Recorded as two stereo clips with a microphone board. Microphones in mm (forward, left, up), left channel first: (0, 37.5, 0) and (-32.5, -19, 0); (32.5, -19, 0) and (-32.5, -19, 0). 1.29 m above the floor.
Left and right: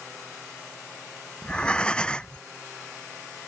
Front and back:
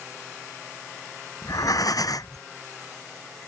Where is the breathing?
15° right.